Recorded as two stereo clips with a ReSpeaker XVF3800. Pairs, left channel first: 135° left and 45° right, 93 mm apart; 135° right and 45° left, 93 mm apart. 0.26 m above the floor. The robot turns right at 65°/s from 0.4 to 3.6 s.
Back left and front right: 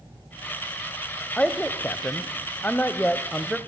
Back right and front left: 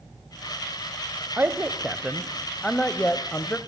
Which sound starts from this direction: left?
A man speaking, at 1.4 s.